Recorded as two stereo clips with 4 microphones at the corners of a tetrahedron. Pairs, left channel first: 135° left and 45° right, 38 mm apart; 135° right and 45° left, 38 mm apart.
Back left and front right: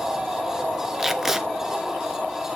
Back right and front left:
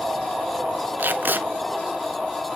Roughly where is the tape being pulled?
Ahead left.